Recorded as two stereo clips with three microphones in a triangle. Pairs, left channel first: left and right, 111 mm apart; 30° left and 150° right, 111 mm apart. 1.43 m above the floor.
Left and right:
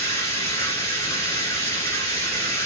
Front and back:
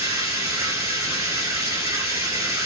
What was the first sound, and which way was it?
Running water, 150° left.